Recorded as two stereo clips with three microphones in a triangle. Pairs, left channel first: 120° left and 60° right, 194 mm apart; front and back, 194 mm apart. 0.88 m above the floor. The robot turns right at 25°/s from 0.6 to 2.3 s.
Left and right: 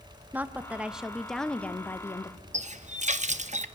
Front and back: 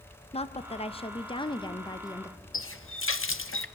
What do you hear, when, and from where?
0.3 s a woman speaking: 15° left, 0.6 m; by 2.4 s 60° left, 0.6 m
2.5 s a running tap: straight ahead, 0.6 m